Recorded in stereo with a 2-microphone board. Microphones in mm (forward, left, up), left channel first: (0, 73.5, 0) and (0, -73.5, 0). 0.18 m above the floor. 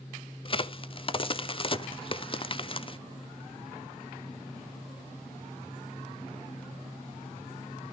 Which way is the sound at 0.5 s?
35° left (ahead or behind).